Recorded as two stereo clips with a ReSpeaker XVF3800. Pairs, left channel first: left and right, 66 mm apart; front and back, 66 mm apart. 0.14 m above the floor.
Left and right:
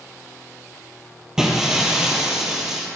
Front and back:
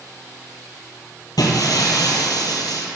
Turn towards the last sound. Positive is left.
turn(degrees=-5)